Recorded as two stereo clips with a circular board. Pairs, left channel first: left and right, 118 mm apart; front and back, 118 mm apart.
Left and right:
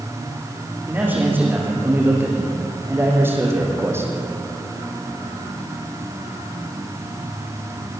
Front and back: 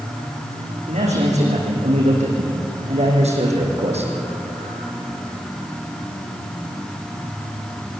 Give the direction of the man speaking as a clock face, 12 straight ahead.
5 o'clock.